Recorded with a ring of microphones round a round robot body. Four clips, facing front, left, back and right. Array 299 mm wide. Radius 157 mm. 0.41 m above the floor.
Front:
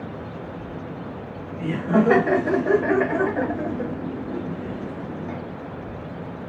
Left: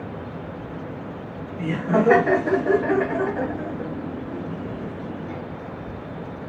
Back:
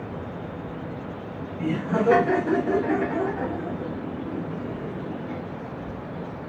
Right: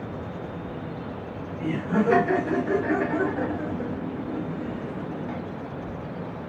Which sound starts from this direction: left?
Laughter, at 1.6 s.